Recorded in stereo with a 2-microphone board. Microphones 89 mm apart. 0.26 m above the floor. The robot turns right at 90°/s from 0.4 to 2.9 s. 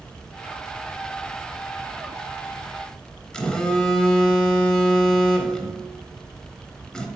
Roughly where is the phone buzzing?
Centre.